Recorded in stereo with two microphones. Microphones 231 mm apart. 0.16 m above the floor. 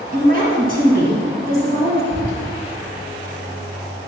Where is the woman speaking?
40° right (ahead or behind), 1.9 m.